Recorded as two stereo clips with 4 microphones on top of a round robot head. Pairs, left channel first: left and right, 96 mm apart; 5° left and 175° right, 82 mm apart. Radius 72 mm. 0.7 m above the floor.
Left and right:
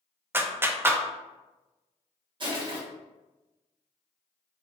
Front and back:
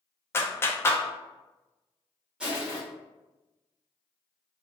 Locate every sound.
0.3 s a clap: 35° right, 0.6 m
2.4 s crushing: 95° right, 1.6 m